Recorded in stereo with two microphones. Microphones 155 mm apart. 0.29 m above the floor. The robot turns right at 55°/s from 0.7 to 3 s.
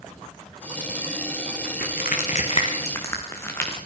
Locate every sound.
1.6 s crushing: 90° left, 5.5 m; by 3.8 s 15° left (ahead or behind), 5.5 m